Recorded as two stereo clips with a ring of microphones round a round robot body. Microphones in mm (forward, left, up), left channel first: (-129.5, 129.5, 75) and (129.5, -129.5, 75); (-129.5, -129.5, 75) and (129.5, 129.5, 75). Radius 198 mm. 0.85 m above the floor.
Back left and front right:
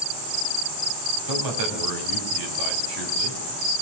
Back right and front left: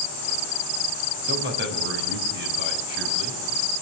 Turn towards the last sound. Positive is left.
turn(degrees=-15)